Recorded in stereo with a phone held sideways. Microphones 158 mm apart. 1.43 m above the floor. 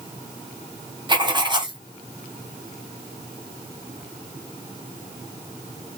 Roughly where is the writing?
Right.